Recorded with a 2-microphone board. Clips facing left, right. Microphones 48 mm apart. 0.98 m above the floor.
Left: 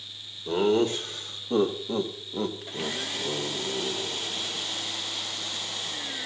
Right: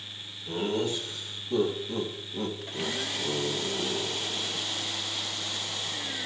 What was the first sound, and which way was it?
Laughter, 65° left (ahead or behind).